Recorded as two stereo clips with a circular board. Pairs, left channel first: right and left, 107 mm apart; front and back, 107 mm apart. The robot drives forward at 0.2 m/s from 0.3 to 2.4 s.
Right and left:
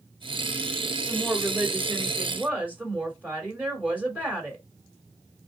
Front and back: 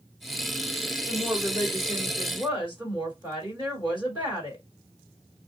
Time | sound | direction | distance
1.1 | a woman speaking | 155° left | 1.8 m